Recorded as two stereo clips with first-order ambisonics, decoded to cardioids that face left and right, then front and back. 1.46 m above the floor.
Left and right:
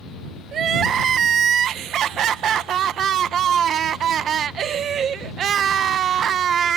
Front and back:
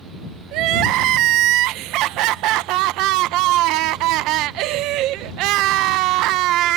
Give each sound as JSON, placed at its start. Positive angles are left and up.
{"t": 0.5, "sound": "crying", "azimuth_deg": -150}